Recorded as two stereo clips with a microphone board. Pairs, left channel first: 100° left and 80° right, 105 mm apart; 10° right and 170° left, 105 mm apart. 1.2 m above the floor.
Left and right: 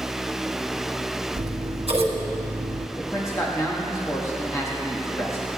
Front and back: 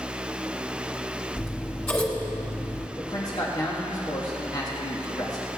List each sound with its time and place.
1.4 s scissors: 85° right, 1.7 m
3.0 s a man speaking: 40° left, 1.4 m